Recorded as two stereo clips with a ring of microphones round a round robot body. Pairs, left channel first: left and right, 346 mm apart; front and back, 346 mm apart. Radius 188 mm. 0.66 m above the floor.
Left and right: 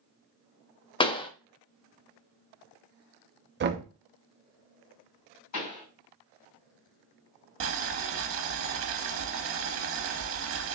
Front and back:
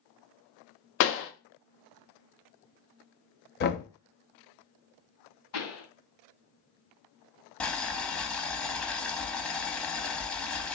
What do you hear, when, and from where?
1.0 s a pop: 20° left, 0.5 m
3.6 s knocking: 45° right, 0.5 m
5.5 s a pop: 50° left, 2.5 m
7.6 s boiling: 85° right, 0.5 m